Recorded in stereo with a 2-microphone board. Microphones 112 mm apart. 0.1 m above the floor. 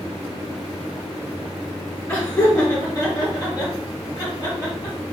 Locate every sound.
2.1 s laughter: 15° left (ahead or behind), 1.5 m; by 5.0 s 35° left (ahead or behind), 2 m